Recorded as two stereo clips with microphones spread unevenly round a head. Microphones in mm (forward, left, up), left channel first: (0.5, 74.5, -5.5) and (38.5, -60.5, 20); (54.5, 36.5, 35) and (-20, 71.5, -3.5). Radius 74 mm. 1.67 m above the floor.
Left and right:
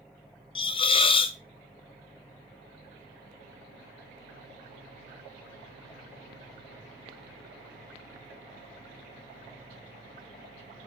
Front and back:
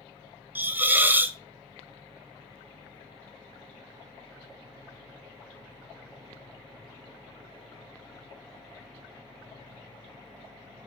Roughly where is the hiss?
Ahead left.